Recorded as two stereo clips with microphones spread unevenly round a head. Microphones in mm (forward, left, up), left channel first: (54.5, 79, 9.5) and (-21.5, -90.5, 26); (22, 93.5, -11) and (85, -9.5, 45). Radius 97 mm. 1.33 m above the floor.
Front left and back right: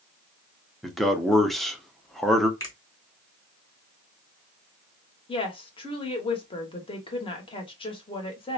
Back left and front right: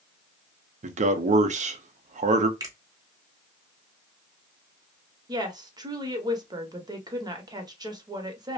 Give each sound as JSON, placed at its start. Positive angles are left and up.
{"t": 0.8, "sound": "a man speaking", "azimuth_deg": -20, "distance_m": 0.7}
{"t": 2.6, "sound": "a finger snap", "azimuth_deg": -10, "distance_m": 1.2}
{"t": 5.3, "sound": "a woman speaking", "azimuth_deg": 5, "distance_m": 1.0}